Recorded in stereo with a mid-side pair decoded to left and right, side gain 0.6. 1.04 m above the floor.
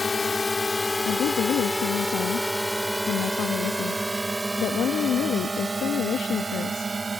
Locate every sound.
0.0 s a drone: 20° left; by 7.2 s 25° right
1.1 s a woman speaking: 50° left